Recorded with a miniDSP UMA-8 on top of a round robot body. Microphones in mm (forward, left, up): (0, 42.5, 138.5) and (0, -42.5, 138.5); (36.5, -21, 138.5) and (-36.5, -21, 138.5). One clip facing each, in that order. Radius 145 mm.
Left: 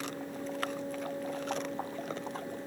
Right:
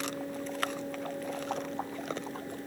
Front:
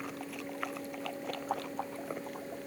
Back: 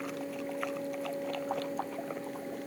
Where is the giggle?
I don't hear a giggle.